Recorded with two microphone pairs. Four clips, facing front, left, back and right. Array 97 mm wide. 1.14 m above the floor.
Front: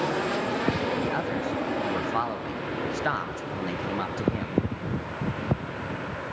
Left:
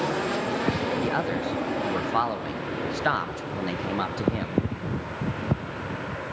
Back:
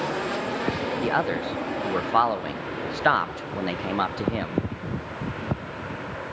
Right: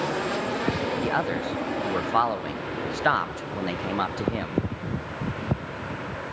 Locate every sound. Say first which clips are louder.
1.0 s a man speaking: even, back 3 dB; 165° right, 0.9 m